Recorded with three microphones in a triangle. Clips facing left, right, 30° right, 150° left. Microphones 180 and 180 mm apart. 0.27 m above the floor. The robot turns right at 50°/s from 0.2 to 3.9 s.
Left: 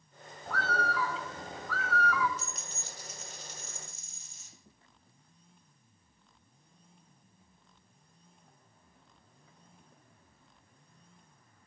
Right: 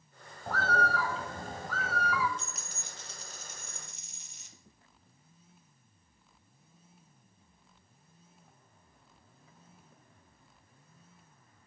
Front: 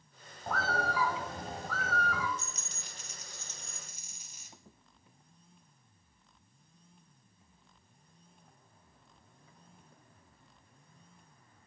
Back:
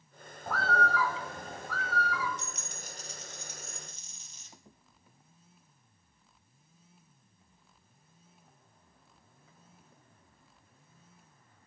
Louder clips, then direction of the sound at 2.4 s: Left 2 dB, back 3 dB; 175° left.